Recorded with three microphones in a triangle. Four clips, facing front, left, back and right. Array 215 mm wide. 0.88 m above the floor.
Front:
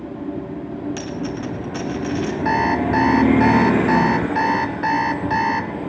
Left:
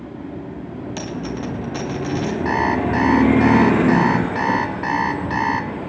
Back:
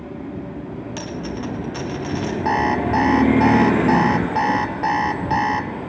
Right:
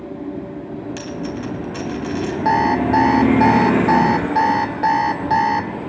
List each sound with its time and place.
1.0 s a dropped coin: 120° left, 2 m
2.5 s an alarm clock: 110° right, 1.3 m